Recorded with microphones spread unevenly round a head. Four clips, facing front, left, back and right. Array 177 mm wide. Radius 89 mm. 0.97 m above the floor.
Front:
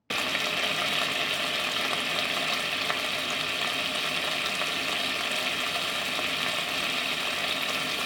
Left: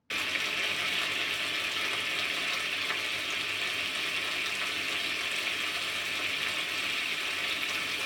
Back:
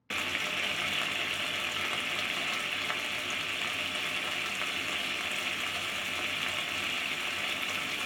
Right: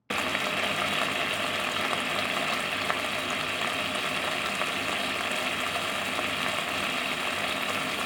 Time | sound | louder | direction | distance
0.1 | frying | right 7 dB, front 5 dB | 60° right | 0.6 m